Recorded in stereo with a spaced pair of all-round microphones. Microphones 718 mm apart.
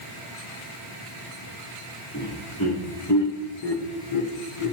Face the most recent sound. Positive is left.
turn(degrees=50)  # may be behind; listen again after turning